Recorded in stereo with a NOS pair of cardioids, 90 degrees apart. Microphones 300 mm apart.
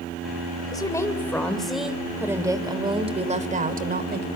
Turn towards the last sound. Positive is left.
turn(degrees=-35)